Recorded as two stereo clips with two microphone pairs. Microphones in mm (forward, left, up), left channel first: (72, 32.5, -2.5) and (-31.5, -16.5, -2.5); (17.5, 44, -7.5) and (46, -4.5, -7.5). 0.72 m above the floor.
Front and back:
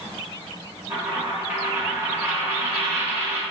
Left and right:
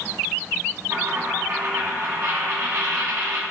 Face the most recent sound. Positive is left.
turn(degrees=-85)